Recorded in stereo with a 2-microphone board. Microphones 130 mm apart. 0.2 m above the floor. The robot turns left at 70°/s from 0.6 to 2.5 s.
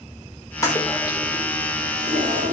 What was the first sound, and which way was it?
A toilet flushing, 25° left.